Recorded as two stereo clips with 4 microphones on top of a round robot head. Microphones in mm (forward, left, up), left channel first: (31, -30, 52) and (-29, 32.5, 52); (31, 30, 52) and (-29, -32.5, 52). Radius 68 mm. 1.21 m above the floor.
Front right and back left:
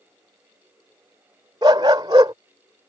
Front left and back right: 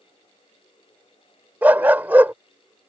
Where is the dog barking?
160° left.